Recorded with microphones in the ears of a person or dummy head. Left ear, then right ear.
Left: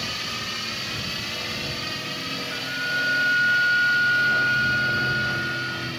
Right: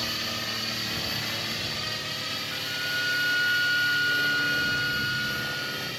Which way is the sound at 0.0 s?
10° right (ahead or behind).